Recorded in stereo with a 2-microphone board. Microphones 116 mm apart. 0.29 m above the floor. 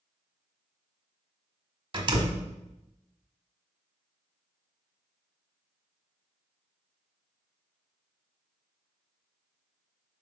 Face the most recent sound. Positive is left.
turn(degrees=-45)  # may be behind; listen again after turning